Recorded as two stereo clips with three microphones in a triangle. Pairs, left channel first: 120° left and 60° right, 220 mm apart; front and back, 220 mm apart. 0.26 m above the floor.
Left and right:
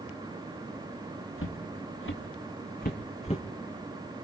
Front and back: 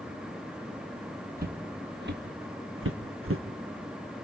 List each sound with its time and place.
1.4 s footsteps: 135° left, 1.7 m; by 3.4 s straight behind, 1.1 m